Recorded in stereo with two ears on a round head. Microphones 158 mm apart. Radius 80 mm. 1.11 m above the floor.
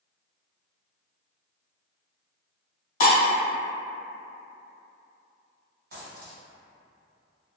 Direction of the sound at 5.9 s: 60° right (ahead or behind).